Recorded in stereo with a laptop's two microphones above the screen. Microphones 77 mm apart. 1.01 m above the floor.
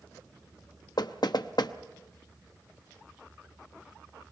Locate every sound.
1.0 s knocking: 70° left (ahead or behind), 0.9 m